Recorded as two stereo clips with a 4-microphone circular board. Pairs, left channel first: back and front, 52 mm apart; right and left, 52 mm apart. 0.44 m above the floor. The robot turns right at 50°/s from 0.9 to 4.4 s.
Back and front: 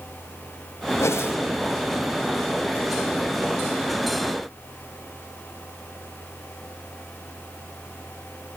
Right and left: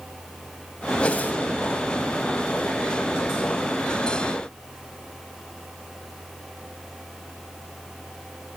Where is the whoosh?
160° right, 1.0 m; by 1.4 s 140° right, 1.0 m.